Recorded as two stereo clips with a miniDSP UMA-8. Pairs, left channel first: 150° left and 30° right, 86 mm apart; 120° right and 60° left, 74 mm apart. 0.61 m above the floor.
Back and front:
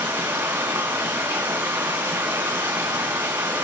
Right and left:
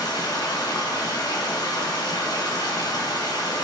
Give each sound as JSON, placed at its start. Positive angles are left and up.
{"t": 0.0, "sound": "running water", "azimuth_deg": -95, "distance_m": 3.5}